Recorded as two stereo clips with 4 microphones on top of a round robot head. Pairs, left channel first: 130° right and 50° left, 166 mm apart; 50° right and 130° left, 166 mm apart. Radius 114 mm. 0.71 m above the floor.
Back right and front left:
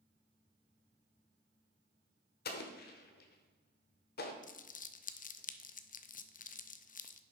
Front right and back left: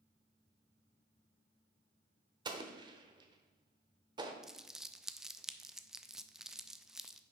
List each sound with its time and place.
2.5 s an explosion: 165° right, 0.9 m
4.4 s crumpling: 140° right, 0.6 m